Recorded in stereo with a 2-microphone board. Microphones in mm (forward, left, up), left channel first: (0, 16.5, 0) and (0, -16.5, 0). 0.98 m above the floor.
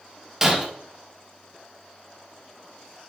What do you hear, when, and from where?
0.4 s breaking glass: 15° right (ahead or behind), 3 m